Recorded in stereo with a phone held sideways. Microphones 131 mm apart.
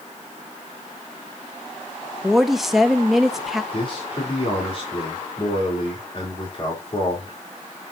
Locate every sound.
2.2 s a woman speaking: centre (ahead or behind), 1.3 m
3.7 s a man speaking: 40° left (ahead or behind), 4 m